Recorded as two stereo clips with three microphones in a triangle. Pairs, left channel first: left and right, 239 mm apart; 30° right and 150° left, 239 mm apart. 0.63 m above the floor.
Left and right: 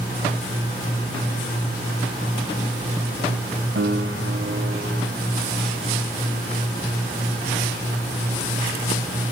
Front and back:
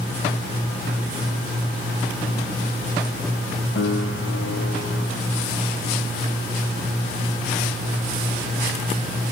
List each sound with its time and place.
3.8 s a piano: 60° right, 1.4 m